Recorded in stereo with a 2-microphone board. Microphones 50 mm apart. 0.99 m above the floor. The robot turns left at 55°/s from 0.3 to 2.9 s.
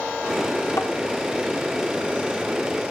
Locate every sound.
0.8 s tapping: 70° left (ahead or behind), 1.0 m